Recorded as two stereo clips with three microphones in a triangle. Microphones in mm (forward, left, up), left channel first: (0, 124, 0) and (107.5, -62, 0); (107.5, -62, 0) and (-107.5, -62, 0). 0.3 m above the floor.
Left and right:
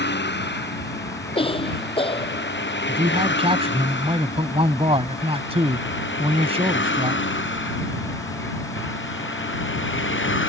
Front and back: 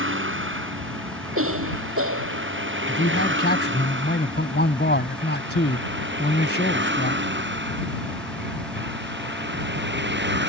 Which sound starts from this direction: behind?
A cough, at 1.4 s.